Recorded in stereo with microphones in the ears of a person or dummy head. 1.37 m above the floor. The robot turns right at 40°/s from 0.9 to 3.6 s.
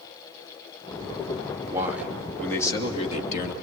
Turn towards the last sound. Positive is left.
turn(degrees=60)